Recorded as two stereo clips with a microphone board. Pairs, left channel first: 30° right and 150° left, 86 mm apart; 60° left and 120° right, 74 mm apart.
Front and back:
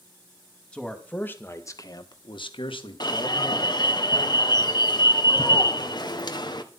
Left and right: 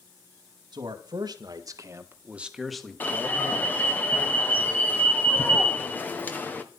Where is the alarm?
5° right, 1.5 m.